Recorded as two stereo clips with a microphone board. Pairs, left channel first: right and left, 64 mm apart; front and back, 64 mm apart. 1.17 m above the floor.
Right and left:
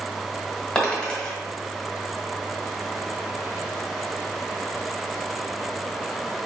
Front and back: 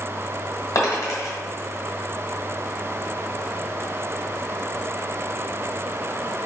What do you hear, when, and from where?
0.8 s a dropped coin: 15° right, 1.5 m